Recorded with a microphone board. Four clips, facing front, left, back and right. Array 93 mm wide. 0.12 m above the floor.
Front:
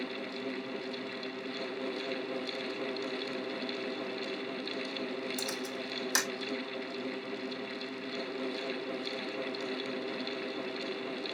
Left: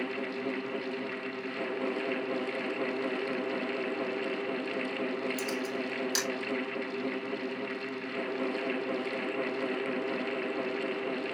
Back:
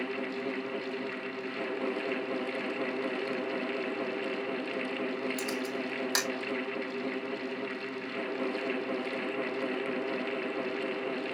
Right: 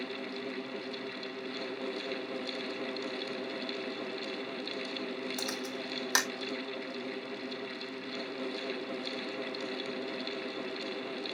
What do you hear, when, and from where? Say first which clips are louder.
5.4 s a camera shutter: left 5 dB, back 4 dB; 105° right, 1.4 m